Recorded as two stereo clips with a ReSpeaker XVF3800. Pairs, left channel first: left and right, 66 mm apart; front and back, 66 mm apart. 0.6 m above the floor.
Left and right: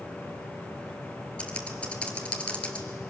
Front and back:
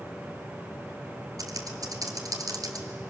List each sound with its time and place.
1.4 s typing on a keyboard: 160° left, 2.0 m